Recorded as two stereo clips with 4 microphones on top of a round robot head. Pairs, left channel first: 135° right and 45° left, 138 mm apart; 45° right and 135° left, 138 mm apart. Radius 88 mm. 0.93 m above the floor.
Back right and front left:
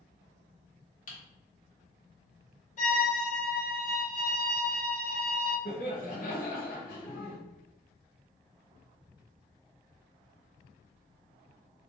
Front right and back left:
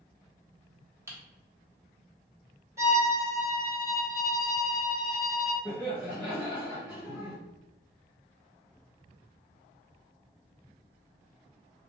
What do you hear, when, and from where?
1.1 s typing on a keyboard: 155° right, 1.2 m
2.8 s a violin: 160° right, 1.5 m
5.7 s laughter: 125° right, 1.1 m